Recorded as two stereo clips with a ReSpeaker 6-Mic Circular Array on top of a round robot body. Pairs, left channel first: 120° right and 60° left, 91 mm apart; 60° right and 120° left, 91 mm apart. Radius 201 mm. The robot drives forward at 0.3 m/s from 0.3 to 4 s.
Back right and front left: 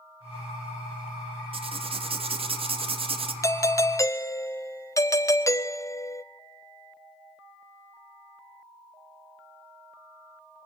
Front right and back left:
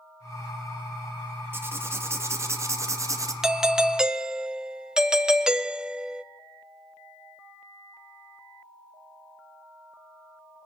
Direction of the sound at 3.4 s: 155° right.